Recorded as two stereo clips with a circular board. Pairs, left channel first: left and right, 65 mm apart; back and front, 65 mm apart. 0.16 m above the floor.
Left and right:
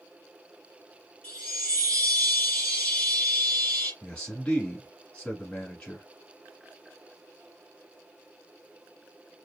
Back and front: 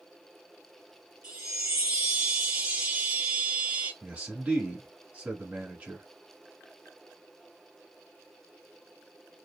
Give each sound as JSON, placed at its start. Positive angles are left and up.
{"t": 1.2, "sound": "a chime", "azimuth_deg": 75, "distance_m": 1.5}
{"t": 4.0, "sound": "a man speaking", "azimuth_deg": 40, "distance_m": 1.1}